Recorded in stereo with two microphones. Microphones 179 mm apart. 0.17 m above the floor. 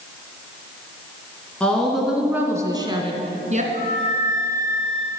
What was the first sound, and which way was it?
A woman speaking, 5° left (ahead or behind).